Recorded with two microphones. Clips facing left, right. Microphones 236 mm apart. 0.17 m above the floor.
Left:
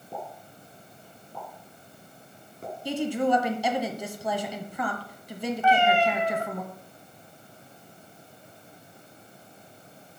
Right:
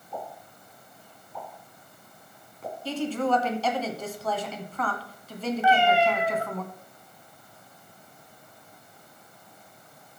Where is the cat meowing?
10° right (ahead or behind), 1.5 m.